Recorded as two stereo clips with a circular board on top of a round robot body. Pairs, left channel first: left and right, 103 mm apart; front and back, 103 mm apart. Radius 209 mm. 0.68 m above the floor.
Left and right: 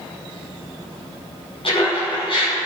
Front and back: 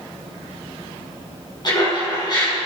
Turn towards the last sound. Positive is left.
turn(degrees=55)